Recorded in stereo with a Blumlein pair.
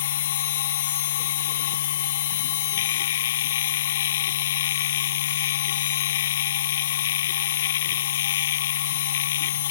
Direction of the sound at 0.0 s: 60° left.